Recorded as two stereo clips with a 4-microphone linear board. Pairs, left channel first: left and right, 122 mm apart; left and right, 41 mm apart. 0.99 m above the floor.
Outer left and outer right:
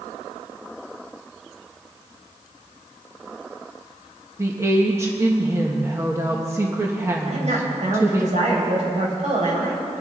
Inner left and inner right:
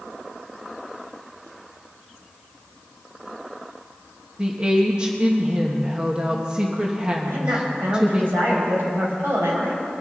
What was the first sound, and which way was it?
A woman speaking, 25° right (ahead or behind).